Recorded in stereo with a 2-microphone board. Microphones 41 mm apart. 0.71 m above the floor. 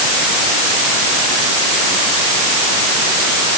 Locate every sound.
Only background noise.